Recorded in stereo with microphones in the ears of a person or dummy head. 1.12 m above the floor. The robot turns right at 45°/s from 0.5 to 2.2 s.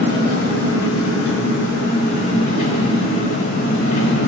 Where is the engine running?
70° left, 1.8 m; by 4.3 s 145° left, 1.8 m.